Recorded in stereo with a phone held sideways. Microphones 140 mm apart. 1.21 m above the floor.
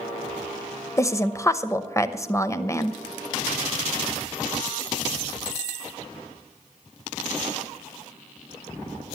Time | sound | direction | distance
1.0 | a woman speaking | 20° left (ahead or behind) | 0.7 m